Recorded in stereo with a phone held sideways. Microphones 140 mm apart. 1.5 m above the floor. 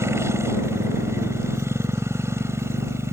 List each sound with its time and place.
0.0 s a motorcycle: 20° right (ahead or behind)